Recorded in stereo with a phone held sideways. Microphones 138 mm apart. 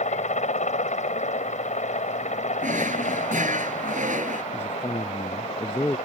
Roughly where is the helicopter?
Left.